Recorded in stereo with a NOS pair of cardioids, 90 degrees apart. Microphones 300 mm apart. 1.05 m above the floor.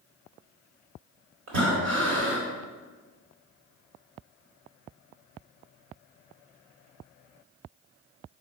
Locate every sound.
1.5 s breathing: 65° right, 4.5 m